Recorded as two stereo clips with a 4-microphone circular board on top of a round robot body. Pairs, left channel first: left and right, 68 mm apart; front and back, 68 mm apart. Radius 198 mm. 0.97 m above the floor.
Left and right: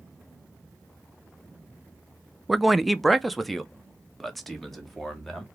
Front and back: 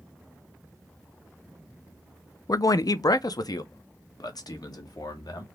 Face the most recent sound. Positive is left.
turn(degrees=0)